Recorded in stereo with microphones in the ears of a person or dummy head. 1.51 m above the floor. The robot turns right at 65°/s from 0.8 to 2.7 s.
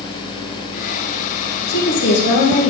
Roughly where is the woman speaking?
Left.